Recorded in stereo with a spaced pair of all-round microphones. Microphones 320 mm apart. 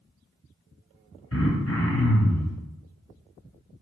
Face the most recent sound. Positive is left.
turn(degrees=45)  # may be behind; listen again after turning